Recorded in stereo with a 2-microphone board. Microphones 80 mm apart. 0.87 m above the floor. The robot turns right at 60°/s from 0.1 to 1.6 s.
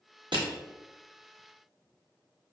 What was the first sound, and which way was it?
Crushing, 75° right (ahead or behind).